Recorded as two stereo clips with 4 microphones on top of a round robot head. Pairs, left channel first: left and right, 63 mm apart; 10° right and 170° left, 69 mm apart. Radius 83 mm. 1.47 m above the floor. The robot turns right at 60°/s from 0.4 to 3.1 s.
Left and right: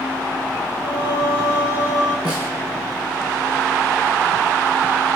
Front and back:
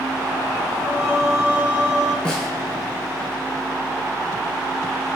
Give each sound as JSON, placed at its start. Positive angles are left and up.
{"t": 0.8, "sound": "singing", "azimuth_deg": 55, "distance_m": 4.5}
{"t": 2.2, "sound": "a snare drum", "azimuth_deg": 65, "distance_m": 7.5}